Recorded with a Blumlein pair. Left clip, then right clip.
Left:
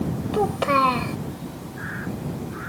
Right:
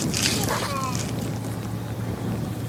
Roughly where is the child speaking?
Ahead left.